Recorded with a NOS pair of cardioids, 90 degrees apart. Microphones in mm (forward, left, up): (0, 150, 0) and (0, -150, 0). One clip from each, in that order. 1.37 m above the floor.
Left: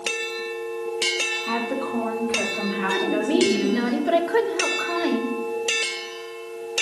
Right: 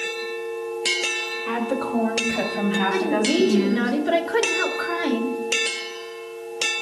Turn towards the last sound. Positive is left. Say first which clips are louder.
# left 2 dB
turn(degrees=-5)